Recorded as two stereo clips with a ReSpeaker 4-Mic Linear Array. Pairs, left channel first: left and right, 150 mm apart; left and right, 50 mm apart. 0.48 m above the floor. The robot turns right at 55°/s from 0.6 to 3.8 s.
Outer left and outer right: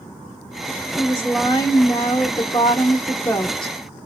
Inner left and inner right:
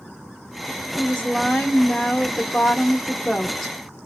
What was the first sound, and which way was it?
A woman speaking, 25° left.